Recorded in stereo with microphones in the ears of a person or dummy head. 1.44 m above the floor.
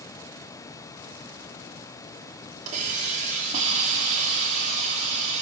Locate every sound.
2.7 s a hiss: 50° right (ahead or behind), 3.5 m